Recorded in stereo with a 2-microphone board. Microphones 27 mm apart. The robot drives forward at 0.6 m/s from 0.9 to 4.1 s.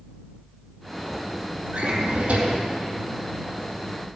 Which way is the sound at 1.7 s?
85° right.